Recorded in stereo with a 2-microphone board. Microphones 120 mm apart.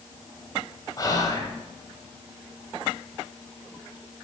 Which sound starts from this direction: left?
Whispering, at 1.0 s.